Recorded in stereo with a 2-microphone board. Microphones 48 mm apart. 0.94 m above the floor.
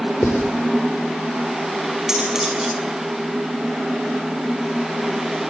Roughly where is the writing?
Left.